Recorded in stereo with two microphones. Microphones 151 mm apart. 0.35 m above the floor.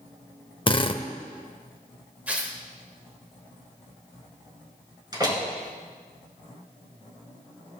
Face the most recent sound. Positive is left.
turn(degrees=-25)  # may be behind; listen again after turning